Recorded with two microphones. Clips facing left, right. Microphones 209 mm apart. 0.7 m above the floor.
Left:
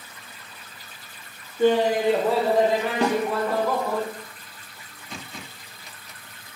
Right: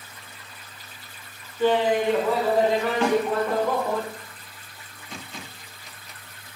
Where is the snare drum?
35° left (ahead or behind), 0.8 m.